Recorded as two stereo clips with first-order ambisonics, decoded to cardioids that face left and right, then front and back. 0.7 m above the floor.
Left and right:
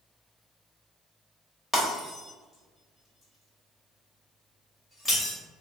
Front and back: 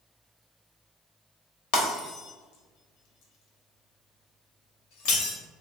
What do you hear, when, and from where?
1.7 s breaking glass: 5° left, 1.0 m